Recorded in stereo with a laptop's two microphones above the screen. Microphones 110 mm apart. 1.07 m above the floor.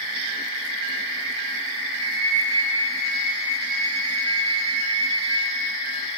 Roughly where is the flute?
Right.